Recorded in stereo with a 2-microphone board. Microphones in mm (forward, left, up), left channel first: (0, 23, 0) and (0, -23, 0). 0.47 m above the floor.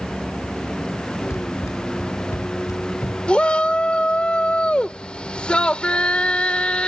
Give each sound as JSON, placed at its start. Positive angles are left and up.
{"t": 0.0, "sound": "a vehicle", "side_deg": 10}
{"t": 1.3, "sound": "running footsteps", "side_deg": 85}
{"t": 3.3, "sound": "a shout", "side_deg": 20}